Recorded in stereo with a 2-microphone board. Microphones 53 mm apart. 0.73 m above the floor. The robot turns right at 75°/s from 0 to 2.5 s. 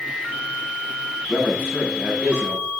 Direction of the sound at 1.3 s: 130° left.